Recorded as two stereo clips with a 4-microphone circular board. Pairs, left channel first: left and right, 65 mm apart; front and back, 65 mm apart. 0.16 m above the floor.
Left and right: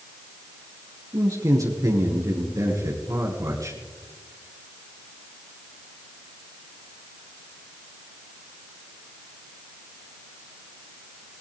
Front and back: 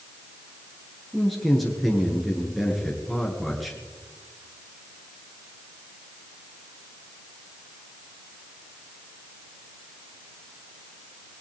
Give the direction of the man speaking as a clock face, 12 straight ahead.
3 o'clock.